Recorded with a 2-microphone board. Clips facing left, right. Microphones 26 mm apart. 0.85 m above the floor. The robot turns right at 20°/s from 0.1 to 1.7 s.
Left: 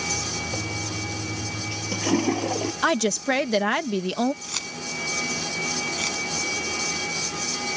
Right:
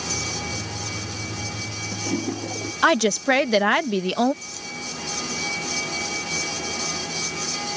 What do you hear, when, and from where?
0.5 s a toilet flushing: 60° left (ahead or behind); by 2.7 s 35° left (ahead or behind)
2.8 s a woman speaking: 20° right (ahead or behind)
4.4 s keys jangling: 75° left (ahead or behind)